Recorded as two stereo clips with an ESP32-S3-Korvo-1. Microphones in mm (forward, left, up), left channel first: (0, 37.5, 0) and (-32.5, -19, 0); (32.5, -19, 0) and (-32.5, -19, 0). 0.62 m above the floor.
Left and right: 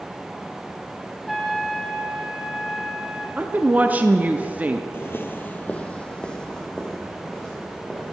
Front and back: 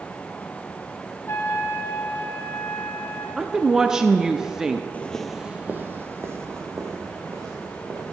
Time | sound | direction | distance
1.3 | a trumpet | 30° right | 1.1 m
3.4 | a woman speaking | 110° right | 0.6 m
4.9 | footsteps | 45° left | 0.7 m